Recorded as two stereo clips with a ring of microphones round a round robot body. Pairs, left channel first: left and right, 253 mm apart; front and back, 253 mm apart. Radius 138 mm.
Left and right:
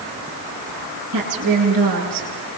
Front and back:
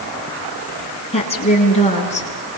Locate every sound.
1.1 s a woman speaking: 70° right, 9.5 m; by 2.3 s 65° right, 10.5 m